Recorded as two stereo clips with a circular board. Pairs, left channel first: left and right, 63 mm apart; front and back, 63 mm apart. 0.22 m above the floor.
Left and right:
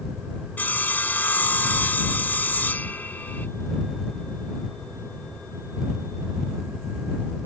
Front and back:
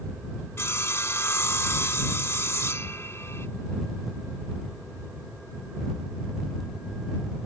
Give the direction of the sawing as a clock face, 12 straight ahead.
11 o'clock.